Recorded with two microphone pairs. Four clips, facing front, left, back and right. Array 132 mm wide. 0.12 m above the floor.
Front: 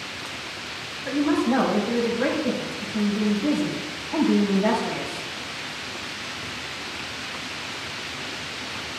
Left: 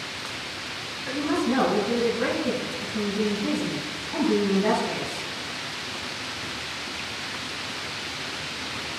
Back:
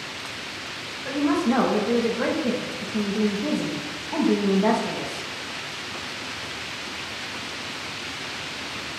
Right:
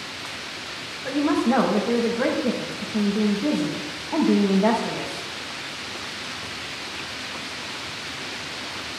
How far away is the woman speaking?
About 4 m.